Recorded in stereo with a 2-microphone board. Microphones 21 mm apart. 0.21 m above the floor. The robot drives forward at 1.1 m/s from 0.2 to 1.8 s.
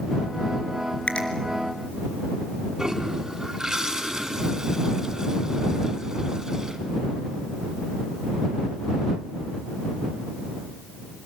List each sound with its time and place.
1.1 s a finger snap: 70° left (ahead or behind), 3.5 m
2.8 s a toilet flushing: 25° right (ahead or behind), 2 m